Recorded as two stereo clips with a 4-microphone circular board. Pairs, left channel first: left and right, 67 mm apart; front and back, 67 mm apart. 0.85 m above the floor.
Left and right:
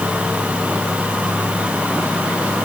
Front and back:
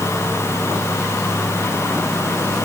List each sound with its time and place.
Only background noise.